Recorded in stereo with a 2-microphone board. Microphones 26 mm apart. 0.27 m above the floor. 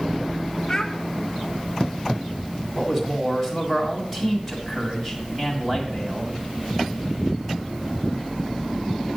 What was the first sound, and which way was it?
A child speaking, 20° left (ahead or behind).